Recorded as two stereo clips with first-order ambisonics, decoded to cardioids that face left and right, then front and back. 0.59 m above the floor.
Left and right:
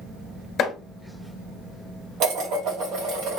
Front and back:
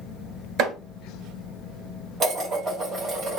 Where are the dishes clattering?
125° right, 2 m.